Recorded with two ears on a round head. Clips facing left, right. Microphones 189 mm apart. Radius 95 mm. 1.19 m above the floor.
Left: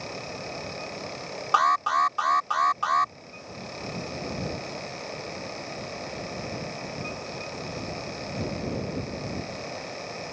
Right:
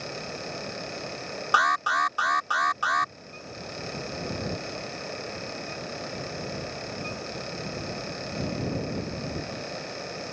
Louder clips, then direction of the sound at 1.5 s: Left 3 dB; 20° right (ahead or behind).